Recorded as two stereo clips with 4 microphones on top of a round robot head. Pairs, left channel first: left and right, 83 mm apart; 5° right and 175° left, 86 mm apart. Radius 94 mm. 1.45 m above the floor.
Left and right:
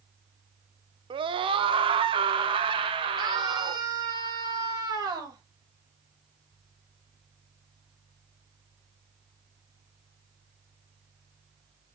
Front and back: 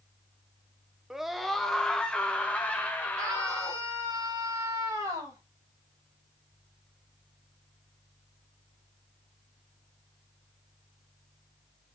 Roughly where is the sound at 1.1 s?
Right.